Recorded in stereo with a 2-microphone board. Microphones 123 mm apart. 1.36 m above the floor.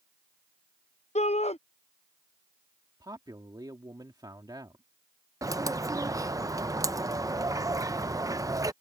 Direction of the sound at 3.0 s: 35° right (ahead or behind).